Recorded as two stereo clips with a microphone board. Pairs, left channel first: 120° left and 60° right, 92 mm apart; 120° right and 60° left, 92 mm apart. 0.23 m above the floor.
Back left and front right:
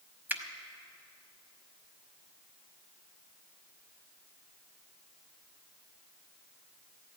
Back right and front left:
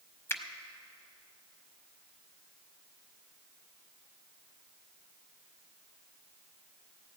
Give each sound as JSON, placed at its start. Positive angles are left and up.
{"t": 0.3, "sound": "a finger snap", "azimuth_deg": -100, "distance_m": 0.9}